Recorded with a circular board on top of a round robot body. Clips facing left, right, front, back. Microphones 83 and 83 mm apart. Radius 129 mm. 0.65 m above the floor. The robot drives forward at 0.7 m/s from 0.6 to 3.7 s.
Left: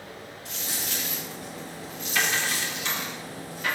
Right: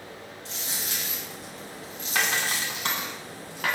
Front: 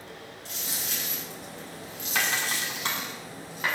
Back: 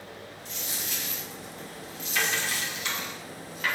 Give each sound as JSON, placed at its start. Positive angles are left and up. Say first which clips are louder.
{"t": 0.5, "sound": "a dropped coin", "louder": "left 1 dB, front 1 dB", "azimuth_deg": -30, "distance_m": 3.5}